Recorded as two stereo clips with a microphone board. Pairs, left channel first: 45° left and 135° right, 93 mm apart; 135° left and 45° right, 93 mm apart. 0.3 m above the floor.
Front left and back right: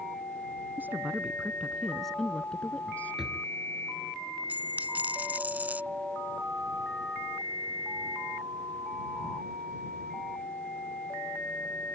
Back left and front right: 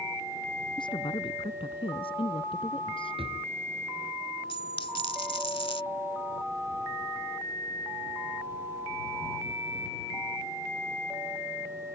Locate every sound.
0.8 s a woman speaking: 155° left; by 3.2 s 115° left
3.2 s a drawer: 50° right
4.5 s a dropped coin: 155° left